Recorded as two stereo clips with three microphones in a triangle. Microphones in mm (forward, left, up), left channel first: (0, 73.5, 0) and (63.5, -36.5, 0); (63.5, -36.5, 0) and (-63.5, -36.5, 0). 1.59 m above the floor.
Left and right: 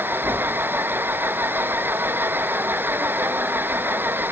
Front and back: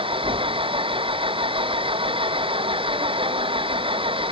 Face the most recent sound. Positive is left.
turn(degrees=-135)